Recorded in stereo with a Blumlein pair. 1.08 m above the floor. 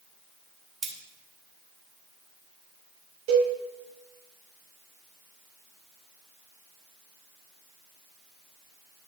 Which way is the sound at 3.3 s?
45° right.